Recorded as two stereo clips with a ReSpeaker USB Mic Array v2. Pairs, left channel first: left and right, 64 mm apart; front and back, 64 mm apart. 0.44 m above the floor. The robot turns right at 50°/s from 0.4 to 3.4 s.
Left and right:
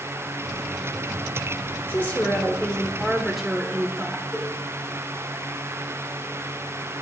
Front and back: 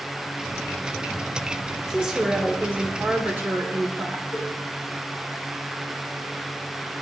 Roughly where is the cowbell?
Left.